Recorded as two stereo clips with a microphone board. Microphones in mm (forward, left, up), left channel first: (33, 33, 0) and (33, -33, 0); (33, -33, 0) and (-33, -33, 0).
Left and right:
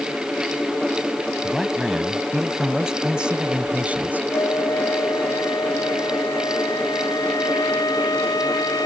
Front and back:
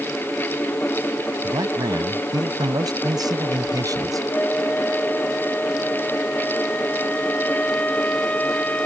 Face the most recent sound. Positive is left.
turn(degrees=65)